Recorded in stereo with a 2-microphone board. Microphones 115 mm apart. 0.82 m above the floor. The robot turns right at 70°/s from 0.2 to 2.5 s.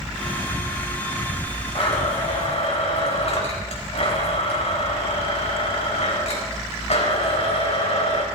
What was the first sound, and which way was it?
A blender, 55° left.